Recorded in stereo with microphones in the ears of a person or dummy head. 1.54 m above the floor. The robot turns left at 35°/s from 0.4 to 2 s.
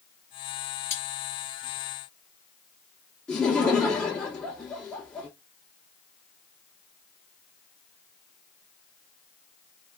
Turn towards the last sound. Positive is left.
turn(degrees=5)  # may be behind; listen again after turning